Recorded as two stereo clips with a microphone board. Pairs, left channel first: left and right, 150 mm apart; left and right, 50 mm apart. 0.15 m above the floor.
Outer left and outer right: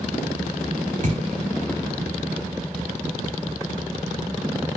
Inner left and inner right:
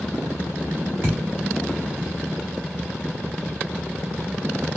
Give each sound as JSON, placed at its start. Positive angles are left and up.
{"t": 1.0, "sound": "a thud", "side_deg": -55, "distance_m": 1.1}